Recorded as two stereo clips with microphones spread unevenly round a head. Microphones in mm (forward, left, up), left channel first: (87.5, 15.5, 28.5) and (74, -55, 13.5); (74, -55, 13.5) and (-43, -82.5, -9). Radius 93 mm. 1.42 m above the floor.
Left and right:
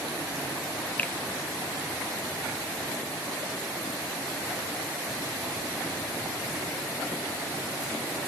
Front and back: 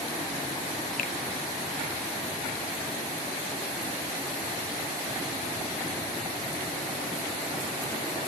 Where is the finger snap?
10° left, 1.2 m.